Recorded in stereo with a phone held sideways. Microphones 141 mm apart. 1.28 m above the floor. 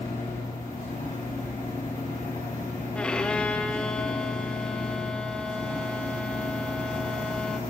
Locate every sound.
0.0 s a machine running: 70° left (ahead or behind), 5 m
3.0 s a violin: 5° left (ahead or behind), 0.6 m